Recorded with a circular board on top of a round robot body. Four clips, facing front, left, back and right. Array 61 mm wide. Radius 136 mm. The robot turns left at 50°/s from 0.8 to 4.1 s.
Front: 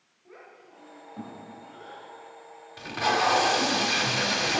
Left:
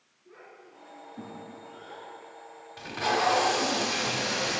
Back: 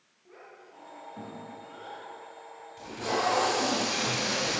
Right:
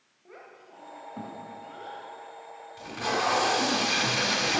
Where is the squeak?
No squeak in this recording.